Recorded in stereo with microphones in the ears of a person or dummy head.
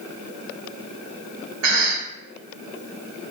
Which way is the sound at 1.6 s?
75° right (ahead or behind).